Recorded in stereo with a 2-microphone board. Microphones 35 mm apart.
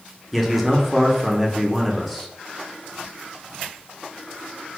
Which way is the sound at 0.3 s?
5° right (ahead or behind).